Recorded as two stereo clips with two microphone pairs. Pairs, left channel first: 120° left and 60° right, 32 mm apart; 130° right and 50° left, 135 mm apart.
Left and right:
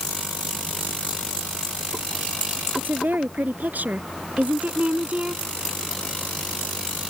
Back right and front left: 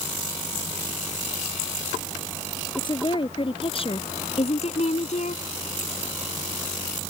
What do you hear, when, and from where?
2.8 s a woman speaking: 80° right; by 5.4 s 110° right